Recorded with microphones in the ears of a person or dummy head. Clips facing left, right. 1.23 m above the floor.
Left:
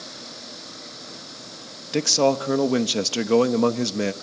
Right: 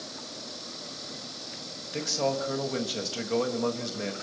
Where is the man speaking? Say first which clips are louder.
Left 9 dB; 70° left (ahead or behind), 1.1 m.